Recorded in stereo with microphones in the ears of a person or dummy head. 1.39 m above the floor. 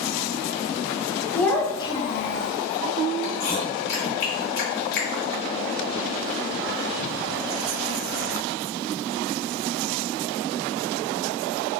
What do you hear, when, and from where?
1.3 s a child speaking: 5° left (ahead or behind), 1.0 m; by 2.5 s 70° left (ahead or behind), 0.6 m
3.2 s chewing: 60° left (ahead or behind), 1.5 m